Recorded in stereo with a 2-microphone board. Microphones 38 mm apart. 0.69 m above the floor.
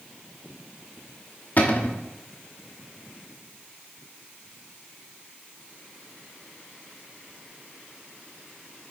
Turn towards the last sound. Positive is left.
turn(degrees=45)  # may be behind; listen again after turning